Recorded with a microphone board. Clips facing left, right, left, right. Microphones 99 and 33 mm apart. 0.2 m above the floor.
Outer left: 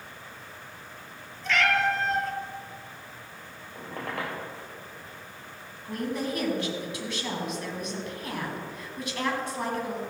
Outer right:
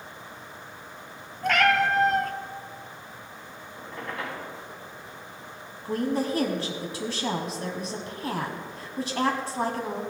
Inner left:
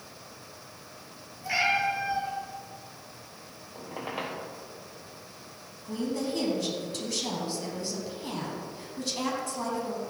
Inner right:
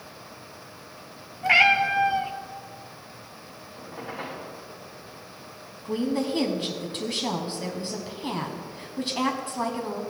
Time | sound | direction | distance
1.4 | a cat meowing | 55° right (ahead or behind) | 0.8 m
3.8 | a squeak | 75° left (ahead or behind) | 3 m
5.8 | a woman speaking | 35° right (ahead or behind) | 1.2 m